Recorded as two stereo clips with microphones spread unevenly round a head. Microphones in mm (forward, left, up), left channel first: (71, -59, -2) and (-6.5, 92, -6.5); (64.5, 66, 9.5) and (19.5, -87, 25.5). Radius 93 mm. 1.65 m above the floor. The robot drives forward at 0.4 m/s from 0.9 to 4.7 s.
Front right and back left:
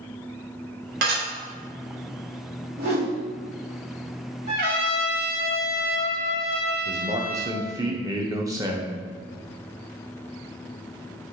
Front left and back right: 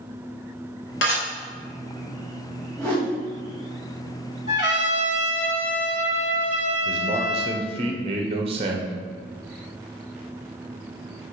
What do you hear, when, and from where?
1.0 s dishes clattering: 105° left, 3 m; by 1.2 s 110° left, 3 m
2.8 s a whoosh: 155° left, 2.5 m; by 3.2 s 160° left, 2.5 m
4.5 s a trumpet: 95° left, 3 m
6.8 s a man speaking: 170° right, 0.9 m